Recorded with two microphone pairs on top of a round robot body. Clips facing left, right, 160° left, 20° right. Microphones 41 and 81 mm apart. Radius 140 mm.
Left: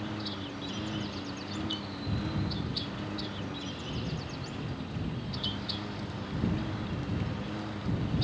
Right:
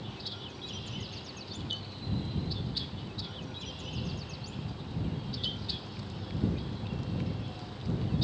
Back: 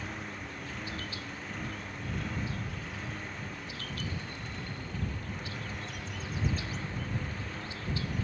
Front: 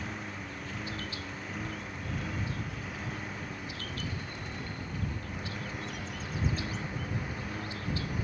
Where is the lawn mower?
70° left; by 8.2 s 60° left.